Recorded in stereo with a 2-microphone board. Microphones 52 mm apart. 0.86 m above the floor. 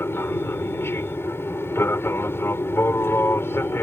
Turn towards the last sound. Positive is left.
turn(degrees=50)  # may be behind; listen again after turning